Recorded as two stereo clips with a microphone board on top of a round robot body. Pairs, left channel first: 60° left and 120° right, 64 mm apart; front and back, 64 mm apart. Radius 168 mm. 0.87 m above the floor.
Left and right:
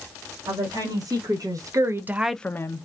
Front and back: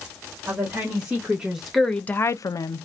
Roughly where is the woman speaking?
Behind right.